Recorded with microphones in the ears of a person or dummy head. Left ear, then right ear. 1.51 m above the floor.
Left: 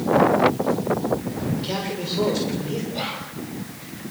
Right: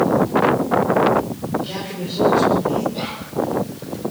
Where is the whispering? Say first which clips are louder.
Even; centre (ahead or behind), 2.5 m.